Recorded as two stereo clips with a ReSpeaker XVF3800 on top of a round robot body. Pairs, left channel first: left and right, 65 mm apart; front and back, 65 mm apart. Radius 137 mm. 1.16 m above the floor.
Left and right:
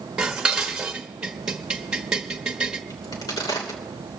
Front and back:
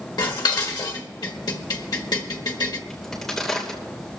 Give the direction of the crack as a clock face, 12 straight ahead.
9 o'clock.